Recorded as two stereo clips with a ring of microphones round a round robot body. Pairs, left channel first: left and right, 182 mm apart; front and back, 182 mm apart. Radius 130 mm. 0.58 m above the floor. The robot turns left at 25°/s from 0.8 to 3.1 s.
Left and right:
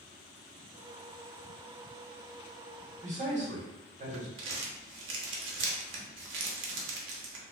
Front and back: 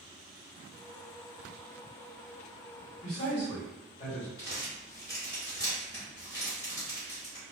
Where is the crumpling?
75° right, 0.6 m.